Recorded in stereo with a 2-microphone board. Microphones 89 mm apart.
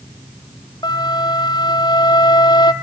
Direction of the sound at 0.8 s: 50° left (ahead or behind).